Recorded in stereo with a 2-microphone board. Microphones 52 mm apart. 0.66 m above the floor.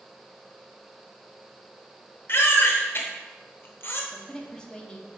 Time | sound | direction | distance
2.3 | a baby crying | 55° left (ahead or behind) | 0.9 m
4.1 | a woman speaking | 20° left (ahead or behind) | 0.9 m